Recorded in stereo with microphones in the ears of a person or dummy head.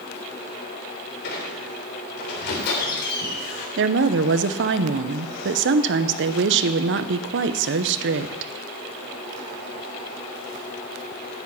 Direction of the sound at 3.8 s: 55° right (ahead or behind).